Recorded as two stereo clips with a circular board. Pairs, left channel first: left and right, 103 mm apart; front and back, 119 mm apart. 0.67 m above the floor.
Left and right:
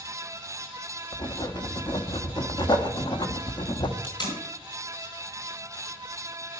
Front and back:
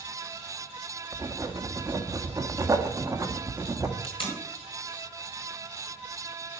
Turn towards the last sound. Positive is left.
turn(degrees=45)